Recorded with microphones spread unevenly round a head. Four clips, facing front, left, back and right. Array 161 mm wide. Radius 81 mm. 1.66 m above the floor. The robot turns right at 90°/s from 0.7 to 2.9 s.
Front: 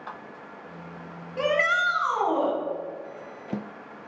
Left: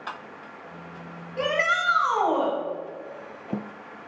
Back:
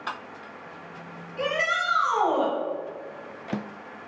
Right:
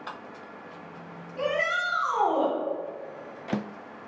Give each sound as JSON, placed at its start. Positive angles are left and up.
{"t": 1.4, "sound": "a shout", "azimuth_deg": 45, "distance_m": 3.5}